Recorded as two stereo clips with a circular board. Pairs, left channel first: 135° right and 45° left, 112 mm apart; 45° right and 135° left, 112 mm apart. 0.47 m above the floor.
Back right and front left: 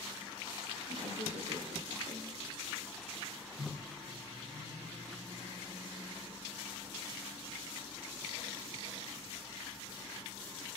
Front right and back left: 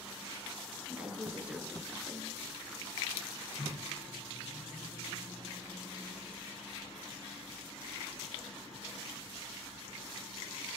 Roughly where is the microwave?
Ahead left.